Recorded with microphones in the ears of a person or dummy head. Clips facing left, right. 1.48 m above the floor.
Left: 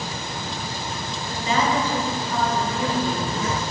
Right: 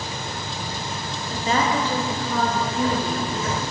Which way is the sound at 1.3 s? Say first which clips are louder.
Even; 25° right (ahead or behind).